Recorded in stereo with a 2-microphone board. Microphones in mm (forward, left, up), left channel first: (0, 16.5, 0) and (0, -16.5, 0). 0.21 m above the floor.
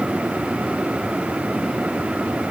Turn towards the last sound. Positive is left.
No sound to turn to.